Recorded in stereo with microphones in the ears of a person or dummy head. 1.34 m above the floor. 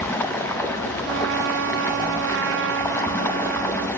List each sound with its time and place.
0.0 s running water: 10° left (ahead or behind), 0.8 m
1.0 s a trumpet: 65° right (ahead or behind), 0.9 m